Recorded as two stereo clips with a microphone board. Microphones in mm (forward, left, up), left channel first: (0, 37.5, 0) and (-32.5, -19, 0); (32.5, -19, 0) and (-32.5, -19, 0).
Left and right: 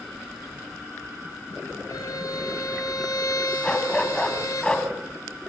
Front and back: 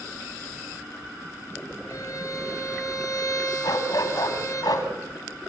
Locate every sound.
1.9 s a violin: 35° left, 8 m
3.6 s a dog barking: 15° right, 3 m